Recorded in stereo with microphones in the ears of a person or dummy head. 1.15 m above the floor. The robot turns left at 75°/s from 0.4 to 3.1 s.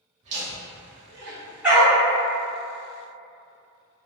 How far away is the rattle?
No rattle in this recording.